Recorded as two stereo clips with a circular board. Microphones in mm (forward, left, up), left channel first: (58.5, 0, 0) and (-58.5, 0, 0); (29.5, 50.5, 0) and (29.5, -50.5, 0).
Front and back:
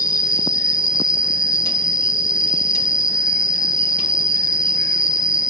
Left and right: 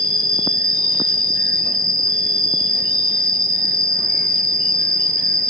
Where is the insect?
50° right, 0.9 m.